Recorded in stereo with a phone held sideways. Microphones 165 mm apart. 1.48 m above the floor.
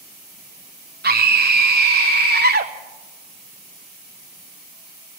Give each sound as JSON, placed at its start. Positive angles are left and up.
{"t": 1.0, "sound": "a scream", "side_deg": -75, "distance_m": 0.8}